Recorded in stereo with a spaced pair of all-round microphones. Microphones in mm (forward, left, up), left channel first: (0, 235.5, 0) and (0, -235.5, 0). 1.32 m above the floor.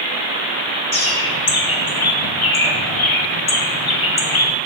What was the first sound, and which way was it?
A bird, 80° left.